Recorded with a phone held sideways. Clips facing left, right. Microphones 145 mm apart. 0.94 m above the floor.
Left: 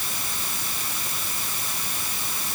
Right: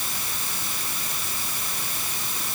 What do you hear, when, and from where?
Only background noise.